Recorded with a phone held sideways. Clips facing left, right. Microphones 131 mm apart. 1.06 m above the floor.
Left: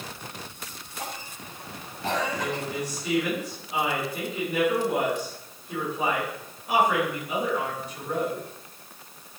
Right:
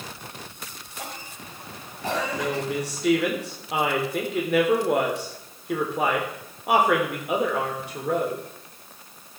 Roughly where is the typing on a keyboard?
No typing on a keyboard in this recording.